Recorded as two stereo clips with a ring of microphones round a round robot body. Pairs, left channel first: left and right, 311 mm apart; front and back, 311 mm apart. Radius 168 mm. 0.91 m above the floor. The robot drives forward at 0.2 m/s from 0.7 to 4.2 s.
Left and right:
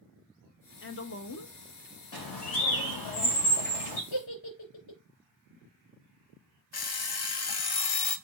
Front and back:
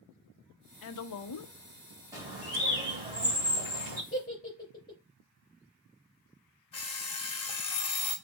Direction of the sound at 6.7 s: 75° left.